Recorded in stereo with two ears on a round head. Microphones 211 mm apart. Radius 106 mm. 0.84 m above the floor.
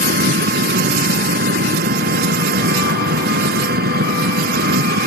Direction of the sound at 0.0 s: 45° right (ahead or behind).